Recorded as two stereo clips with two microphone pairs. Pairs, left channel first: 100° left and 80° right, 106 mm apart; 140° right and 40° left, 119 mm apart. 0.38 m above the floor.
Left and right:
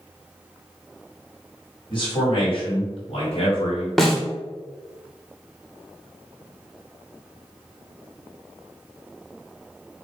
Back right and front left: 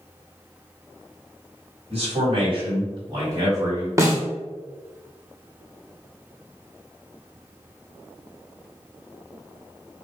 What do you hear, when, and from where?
1.9 s a man speaking: 60° left, 1.8 m; by 3.9 s 105° left, 2.0 m
4.0 s a snare drum: 15° left, 0.9 m